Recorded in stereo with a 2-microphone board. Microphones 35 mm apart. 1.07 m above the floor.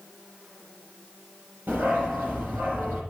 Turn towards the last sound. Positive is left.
turn(degrees=-70)  # may be behind; listen again after turning